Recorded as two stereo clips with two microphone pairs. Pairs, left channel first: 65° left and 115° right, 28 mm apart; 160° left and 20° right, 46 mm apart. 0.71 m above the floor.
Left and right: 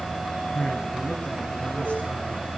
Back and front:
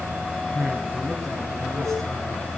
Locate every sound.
0.5 s a man speaking: 70° left, 5.5 m; by 2.4 s 75° left, 8 m